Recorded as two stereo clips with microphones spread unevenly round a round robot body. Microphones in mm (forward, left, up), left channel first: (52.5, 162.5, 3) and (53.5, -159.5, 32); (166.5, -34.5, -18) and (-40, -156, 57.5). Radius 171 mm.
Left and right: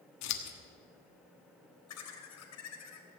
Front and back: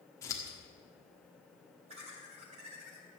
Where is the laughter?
135° left, 2.5 m.